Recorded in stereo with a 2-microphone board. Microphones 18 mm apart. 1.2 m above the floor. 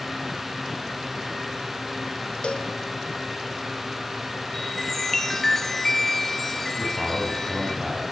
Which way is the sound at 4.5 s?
20° left (ahead or behind).